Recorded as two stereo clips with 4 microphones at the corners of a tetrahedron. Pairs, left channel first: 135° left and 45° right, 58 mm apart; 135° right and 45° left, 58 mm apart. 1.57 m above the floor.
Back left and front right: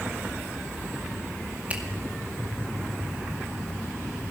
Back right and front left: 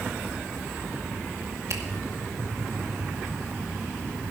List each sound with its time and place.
1.7 s a finger snap: 20° left, 2 m